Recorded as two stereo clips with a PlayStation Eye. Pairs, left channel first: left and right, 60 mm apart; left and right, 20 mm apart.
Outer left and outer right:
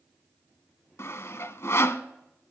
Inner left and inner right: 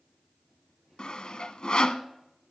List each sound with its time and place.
1.0 s sawing: 55° left (ahead or behind), 0.8 m